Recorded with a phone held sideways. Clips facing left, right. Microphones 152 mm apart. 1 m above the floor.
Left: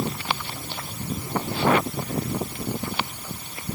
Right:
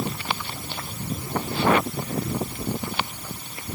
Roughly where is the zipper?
I don't hear a zipper.